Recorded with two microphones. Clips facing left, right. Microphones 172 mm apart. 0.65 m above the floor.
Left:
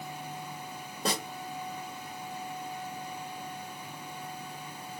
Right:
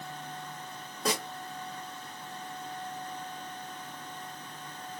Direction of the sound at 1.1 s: 30° left (ahead or behind).